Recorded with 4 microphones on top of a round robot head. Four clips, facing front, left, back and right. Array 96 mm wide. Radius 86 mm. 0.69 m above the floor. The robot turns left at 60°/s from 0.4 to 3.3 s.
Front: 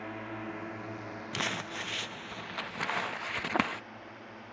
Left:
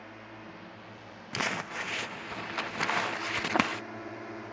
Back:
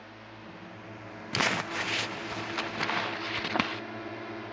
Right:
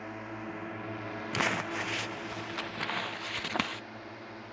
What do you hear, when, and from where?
0.0 s a drone: 35° right; by 4.5 s 150° left
1.3 s crumpling: 160° right; by 3.8 s 85° left